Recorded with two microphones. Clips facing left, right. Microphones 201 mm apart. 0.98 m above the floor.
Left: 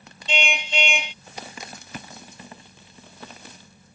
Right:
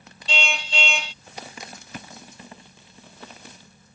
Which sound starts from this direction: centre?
A car horn, at 0.3 s.